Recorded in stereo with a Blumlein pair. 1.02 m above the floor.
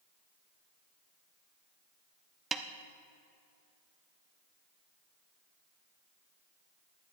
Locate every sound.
2.5 s a snare drum: 20° right, 0.7 m